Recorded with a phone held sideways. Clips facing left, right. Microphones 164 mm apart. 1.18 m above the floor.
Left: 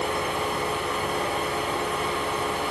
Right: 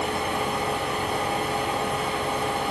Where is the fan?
60° right (ahead or behind), 3 m.